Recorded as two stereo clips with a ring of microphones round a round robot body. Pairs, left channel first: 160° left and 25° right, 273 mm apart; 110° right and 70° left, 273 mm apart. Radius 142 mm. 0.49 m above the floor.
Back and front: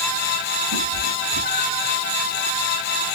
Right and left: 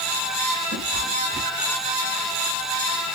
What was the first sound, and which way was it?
A cat meowing, straight ahead.